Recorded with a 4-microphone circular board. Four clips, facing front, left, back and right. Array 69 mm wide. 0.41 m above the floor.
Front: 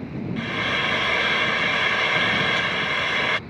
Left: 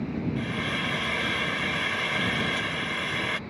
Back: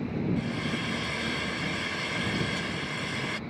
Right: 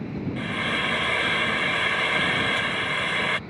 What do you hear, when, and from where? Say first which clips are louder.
0.4 s frying: right 7 dB, front 7 dB; 20° right